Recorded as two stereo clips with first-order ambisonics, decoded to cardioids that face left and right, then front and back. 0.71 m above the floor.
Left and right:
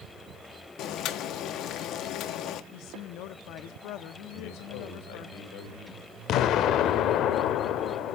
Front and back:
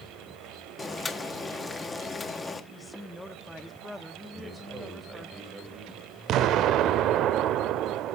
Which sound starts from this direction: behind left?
An explosion, at 6.3 s.